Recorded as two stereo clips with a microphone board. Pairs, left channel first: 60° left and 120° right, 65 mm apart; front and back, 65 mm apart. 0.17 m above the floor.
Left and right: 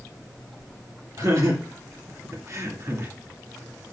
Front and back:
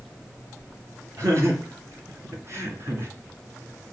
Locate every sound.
1.2 s laughter: 145° right, 4 m